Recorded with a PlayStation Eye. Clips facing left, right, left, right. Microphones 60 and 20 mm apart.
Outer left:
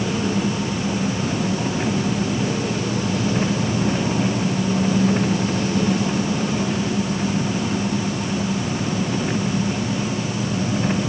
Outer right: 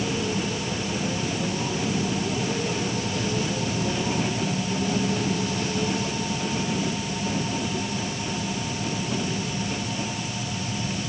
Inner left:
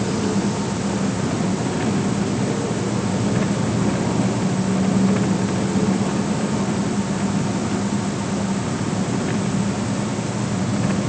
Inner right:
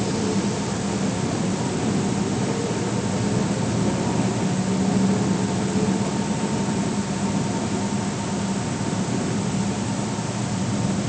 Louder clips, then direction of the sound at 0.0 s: Outer left 5 dB, inner left 2 dB; 55° left (ahead or behind).